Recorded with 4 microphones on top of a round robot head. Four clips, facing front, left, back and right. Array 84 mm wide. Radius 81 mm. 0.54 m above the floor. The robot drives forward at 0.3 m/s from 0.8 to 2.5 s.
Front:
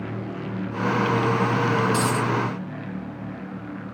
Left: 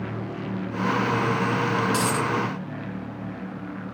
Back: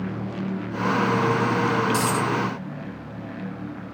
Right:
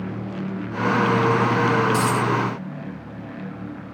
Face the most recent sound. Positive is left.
turn(degrees=105)